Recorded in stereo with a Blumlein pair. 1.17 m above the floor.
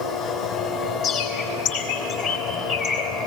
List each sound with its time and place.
0.0 s a machine running: 35° left, 2.5 m
1.0 s a bird: 35° left, 3.5 m